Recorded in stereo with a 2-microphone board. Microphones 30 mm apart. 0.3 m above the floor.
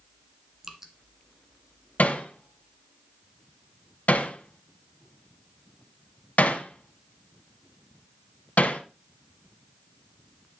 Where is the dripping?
15° right (ahead or behind), 1.4 m.